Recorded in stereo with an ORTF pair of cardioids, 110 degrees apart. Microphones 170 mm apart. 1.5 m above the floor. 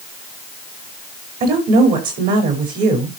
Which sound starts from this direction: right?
A woman speaking, at 1.4 s.